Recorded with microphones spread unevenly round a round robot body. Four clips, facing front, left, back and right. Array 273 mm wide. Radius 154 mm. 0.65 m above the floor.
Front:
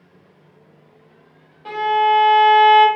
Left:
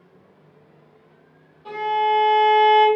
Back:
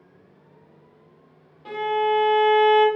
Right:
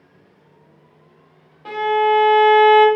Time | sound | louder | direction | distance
1.6 | a violin | right 4 dB, front 6 dB | 75° right | 0.7 m